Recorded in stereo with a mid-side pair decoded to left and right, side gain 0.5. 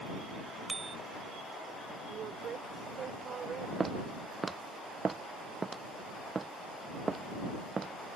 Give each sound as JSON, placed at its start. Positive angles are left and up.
{"t": 0.7, "sound": "a bicycle bell", "azimuth_deg": -25}
{"t": 2.1, "sound": "a woman speaking", "azimuth_deg": -50}
{"t": 3.8, "sound": "footsteps", "azimuth_deg": -25}